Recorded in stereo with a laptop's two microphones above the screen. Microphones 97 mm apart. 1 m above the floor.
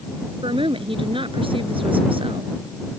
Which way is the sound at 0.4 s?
70° right (ahead or behind).